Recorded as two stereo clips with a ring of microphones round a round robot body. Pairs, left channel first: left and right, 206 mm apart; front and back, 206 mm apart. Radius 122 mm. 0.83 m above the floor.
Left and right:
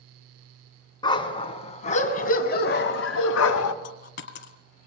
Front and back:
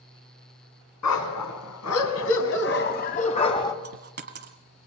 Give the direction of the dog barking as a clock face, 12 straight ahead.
11 o'clock.